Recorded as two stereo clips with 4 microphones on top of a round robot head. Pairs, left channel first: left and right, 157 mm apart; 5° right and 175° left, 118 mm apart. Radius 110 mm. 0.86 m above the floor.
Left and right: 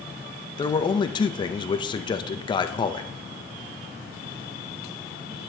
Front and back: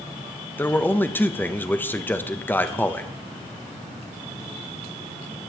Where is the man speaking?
60° left, 0.9 m.